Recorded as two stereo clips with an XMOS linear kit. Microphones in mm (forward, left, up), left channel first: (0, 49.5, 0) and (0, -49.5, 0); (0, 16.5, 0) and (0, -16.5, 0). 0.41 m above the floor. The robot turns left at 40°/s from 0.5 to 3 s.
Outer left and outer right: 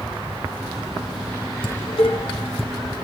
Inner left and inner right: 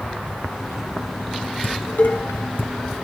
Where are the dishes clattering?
65° left (ahead or behind), 2.5 m.